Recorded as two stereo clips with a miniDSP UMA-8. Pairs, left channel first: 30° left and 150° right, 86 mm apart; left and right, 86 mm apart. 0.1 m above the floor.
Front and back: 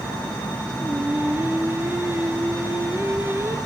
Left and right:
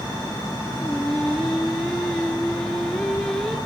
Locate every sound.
0.8 s singing: 170° left, 1.6 m